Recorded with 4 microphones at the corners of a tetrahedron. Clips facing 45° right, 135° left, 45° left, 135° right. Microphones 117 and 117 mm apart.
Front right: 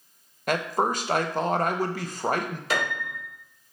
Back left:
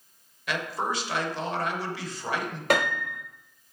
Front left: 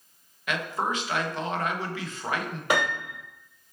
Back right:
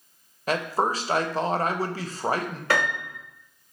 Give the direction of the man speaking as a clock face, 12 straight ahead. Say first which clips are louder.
Front right 5 dB, back right 4 dB; 3 o'clock.